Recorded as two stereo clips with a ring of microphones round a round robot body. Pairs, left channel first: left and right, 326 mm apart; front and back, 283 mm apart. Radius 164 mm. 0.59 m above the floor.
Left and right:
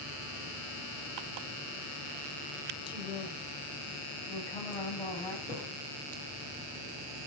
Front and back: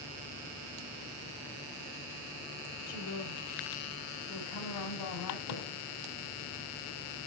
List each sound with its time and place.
2.9 s a woman speaking: 15° left, 2.5 m; by 5.4 s 10° left, 3.5 m
5.5 s a thud: 10° right, 5.5 m